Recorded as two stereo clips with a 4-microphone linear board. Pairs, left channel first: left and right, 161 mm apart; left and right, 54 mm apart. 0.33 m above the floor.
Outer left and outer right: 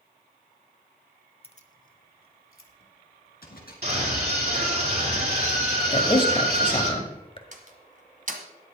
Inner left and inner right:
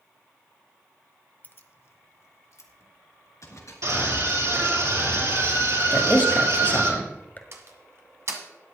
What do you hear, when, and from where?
1.4 s keys jangling: 35° left (ahead or behind), 0.8 m; by 3.7 s 75° left (ahead or behind), 3.5 m
3.8 s a scream: 75° right (ahead or behind), 6.5 m
5.9 s a woman speaking: 35° left (ahead or behind), 1.7 m
7.5 s a door slam: 55° right (ahead or behind), 1.7 m